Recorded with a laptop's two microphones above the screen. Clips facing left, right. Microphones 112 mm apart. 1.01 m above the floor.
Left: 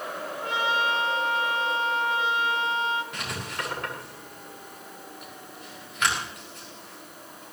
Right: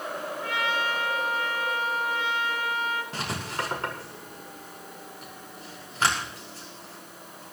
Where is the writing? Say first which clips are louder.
Right 2 dB; 30° right (ahead or behind), 6 m.